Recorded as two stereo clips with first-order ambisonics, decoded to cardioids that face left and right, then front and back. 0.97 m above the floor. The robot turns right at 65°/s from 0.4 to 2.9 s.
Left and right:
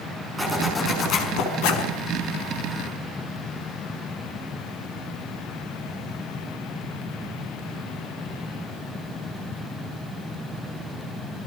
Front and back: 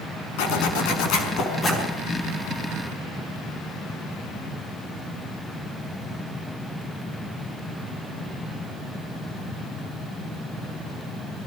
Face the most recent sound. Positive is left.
turn(degrees=150)